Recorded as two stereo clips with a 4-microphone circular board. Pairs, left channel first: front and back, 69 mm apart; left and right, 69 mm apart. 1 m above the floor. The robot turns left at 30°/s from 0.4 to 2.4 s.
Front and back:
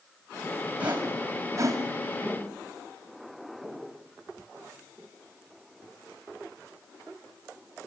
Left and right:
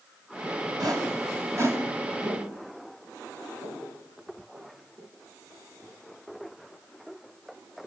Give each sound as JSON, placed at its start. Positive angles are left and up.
{"t": 0.8, "sound": "a whoosh", "azimuth_deg": -110, "distance_m": 5.5}
{"t": 2.2, "sound": "footsteps", "azimuth_deg": -85, "distance_m": 5.5}